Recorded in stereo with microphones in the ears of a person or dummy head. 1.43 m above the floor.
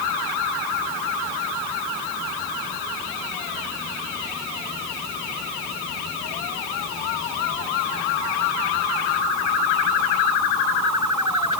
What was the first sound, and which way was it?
Only background noise.